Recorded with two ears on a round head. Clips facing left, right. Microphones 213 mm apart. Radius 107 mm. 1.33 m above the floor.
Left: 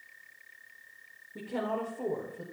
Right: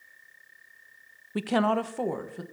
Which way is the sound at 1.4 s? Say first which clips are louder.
Right 8 dB; 75° right (ahead or behind).